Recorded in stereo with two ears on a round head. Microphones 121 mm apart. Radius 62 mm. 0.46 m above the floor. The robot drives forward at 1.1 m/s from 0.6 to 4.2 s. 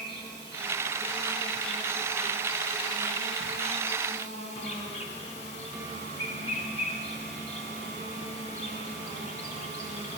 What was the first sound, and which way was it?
An insect, 35° left (ahead or behind).